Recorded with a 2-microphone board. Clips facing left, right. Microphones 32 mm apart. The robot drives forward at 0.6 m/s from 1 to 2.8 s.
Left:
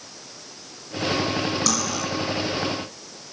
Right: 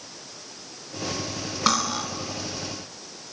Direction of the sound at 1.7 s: 35° right (ahead or behind).